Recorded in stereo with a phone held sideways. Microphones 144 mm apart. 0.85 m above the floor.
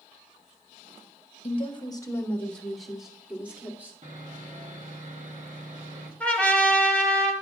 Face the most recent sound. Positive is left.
turn(degrees=10)  # may be behind; listen again after turning